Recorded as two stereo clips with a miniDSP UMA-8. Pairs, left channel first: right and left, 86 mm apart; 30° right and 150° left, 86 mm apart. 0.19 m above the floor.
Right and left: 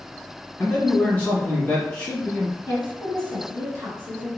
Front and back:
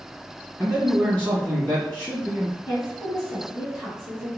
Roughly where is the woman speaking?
Left.